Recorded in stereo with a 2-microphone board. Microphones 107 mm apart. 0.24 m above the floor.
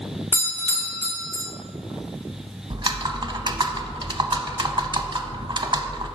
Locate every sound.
0.3 s a doorbell: 20° right (ahead or behind), 1.4 m
2.7 s typing on a keyboard: 45° right (ahead or behind), 0.5 m